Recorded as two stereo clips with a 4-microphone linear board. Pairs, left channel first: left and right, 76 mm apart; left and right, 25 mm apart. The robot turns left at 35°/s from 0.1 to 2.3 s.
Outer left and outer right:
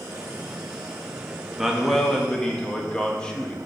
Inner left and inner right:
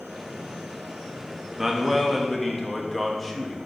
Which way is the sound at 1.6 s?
10° right (ahead or behind).